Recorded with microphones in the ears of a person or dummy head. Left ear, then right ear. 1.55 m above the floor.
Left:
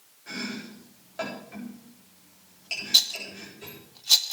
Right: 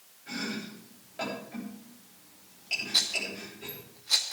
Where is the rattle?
25° left (ahead or behind), 0.6 m.